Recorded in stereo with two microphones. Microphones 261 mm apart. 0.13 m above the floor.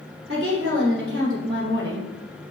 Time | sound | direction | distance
0.3 | a woman speaking | 50° right (ahead or behind) | 2.5 m